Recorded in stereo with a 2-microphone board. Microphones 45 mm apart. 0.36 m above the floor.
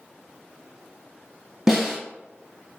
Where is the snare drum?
10° right (ahead or behind), 1.6 m.